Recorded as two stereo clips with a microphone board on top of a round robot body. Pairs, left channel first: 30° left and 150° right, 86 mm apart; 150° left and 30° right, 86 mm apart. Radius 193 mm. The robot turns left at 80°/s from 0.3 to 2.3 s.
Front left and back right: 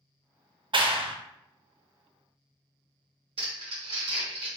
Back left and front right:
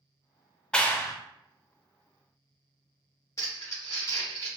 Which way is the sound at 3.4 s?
155° right.